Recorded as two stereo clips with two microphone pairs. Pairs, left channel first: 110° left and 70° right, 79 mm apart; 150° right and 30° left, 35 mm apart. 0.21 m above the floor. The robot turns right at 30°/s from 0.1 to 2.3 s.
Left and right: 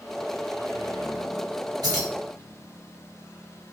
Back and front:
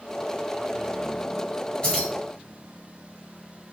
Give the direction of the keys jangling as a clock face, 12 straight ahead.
3 o'clock.